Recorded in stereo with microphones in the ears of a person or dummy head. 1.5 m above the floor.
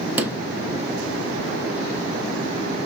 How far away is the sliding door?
About 0.9 m.